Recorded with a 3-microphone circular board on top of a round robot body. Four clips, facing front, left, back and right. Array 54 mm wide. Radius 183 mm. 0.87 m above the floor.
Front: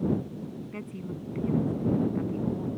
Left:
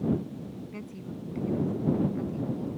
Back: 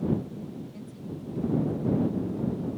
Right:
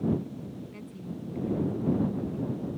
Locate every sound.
0.7 s a woman speaking: 20° left